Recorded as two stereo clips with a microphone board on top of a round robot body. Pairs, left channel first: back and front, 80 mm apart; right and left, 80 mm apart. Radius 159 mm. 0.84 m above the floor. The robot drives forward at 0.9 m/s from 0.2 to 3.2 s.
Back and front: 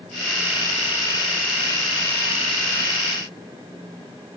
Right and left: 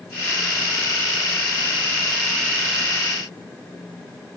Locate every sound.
Only background noise.